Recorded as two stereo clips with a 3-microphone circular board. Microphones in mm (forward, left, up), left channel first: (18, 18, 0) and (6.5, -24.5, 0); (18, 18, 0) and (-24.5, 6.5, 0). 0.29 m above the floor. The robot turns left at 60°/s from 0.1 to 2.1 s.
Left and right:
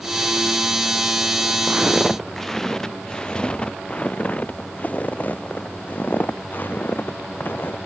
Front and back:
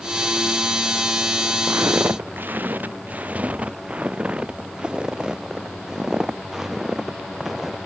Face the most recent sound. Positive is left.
turn(degrees=115)